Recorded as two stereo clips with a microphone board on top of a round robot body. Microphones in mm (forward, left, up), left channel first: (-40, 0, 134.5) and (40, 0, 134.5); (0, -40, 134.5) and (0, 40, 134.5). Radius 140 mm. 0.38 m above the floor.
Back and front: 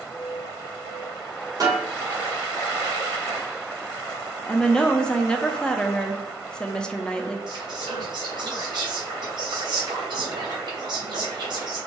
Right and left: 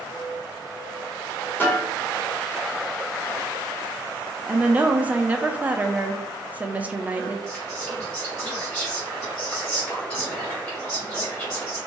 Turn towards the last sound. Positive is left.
turn(degrees=-10)